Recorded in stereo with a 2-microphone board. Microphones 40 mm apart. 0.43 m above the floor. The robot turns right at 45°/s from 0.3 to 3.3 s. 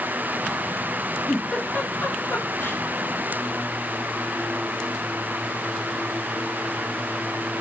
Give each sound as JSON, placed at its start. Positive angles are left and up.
{"t": 1.3, "sound": "a giggle", "side_deg": 5, "distance_m": 1.0}